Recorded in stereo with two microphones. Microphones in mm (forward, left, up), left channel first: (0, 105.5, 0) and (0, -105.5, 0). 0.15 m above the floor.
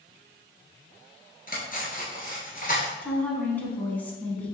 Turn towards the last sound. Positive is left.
turn(degrees=10)  # may be behind; listen again after turning